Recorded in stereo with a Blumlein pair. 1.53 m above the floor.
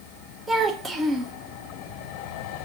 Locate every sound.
0.5 s a child speaking: 10° right, 1.0 m